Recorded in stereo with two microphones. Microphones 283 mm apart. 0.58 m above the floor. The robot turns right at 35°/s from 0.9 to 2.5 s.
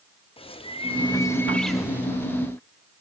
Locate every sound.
0.4 s a bird: 150° left, 0.6 m; by 2.1 s 165° right, 0.6 m